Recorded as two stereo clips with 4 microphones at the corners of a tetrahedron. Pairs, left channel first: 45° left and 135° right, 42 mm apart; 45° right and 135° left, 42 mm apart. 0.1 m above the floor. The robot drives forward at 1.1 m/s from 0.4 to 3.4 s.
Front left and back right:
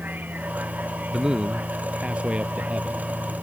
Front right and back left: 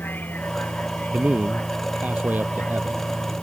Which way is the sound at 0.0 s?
90° right.